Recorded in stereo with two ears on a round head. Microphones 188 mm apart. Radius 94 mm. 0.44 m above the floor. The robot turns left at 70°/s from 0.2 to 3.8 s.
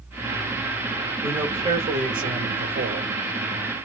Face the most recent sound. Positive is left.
turn(degrees=180)